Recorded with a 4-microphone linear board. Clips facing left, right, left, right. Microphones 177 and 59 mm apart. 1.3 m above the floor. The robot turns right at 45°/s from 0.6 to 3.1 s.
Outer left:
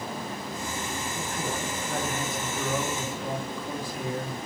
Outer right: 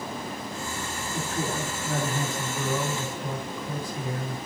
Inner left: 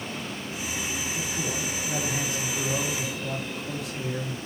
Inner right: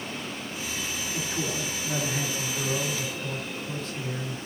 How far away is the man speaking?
About 3 m.